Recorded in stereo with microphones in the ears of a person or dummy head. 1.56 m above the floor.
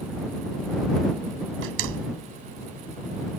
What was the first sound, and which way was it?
A door slam, 75° right (ahead or behind).